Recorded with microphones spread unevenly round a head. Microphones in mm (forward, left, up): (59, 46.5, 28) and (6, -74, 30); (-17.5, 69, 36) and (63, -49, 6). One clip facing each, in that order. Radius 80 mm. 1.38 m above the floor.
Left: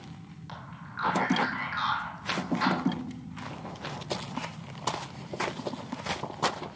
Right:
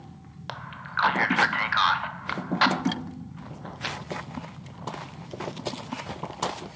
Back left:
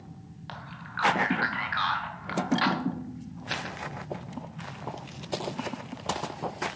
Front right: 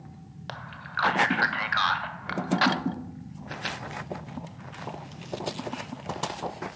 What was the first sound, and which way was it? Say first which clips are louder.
A man speaking: right 8 dB, front right 2 dB; 100° right.